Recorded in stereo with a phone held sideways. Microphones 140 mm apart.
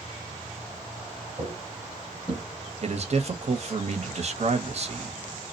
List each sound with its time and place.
1.4 s footsteps: 35° right (ahead or behind), 1.2 m; by 2.4 s 15° left (ahead or behind), 1.2 m
2.8 s a man speaking: 50° right (ahead or behind), 0.7 m